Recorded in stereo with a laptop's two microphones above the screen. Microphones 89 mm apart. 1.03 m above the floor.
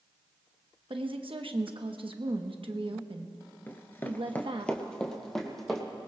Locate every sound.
0.9 s a woman speaking: 65° right (ahead or behind), 1.0 m
3.7 s running footsteps: 25° left (ahead or behind), 1.1 m; by 5.9 s 5° left (ahead or behind), 3 m